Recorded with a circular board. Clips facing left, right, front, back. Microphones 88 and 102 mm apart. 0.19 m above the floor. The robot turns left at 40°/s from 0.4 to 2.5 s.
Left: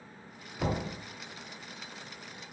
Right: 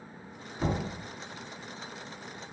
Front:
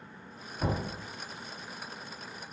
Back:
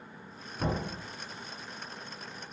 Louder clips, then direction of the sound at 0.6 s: Right 1 dB, even; 155° left.